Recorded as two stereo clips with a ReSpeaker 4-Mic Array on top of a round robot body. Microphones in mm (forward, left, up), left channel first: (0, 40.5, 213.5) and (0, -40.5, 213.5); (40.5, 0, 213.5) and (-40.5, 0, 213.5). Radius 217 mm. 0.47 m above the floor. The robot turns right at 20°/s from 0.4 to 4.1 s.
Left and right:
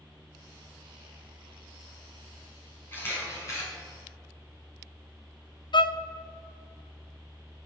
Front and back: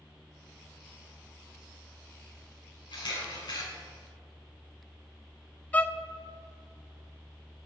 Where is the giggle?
I don't hear a giggle.